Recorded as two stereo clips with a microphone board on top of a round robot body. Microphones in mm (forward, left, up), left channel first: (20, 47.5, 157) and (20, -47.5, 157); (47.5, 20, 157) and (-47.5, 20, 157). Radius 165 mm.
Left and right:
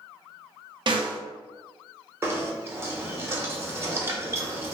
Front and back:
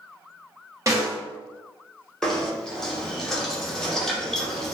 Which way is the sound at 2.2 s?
80° right.